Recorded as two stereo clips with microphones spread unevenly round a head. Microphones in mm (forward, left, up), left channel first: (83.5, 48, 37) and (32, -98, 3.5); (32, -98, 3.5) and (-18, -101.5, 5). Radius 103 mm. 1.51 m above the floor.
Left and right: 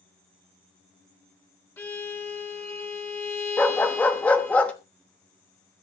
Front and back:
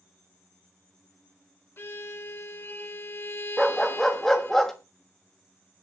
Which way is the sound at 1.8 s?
15° left.